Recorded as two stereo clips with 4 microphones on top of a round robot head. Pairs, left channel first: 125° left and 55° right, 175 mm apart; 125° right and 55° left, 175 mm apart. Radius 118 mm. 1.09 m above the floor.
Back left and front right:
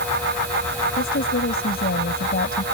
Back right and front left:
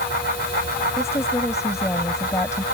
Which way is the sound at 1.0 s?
160° left.